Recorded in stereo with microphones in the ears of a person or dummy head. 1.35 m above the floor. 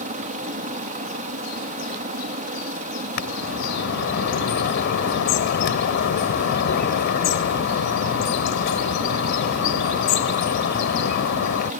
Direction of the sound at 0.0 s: 40° right (ahead or behind).